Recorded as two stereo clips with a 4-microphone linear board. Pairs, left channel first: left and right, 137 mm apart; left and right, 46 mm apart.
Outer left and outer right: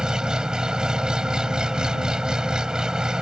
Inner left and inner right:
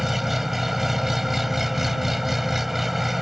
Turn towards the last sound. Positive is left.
turn(degrees=-5)  # may be behind; listen again after turning